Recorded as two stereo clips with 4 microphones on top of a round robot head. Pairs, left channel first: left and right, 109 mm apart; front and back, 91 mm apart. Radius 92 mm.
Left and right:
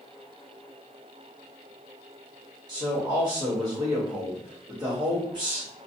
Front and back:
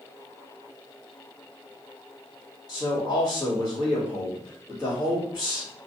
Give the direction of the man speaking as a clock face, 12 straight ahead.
1 o'clock.